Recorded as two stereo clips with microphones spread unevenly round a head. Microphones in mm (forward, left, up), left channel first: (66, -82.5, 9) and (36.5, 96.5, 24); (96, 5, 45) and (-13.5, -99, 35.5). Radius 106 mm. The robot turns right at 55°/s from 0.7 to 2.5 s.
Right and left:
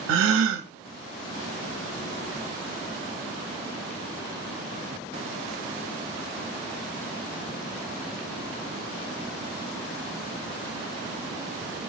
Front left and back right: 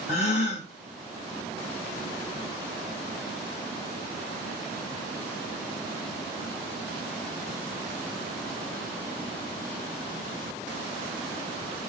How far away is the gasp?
About 0.5 m.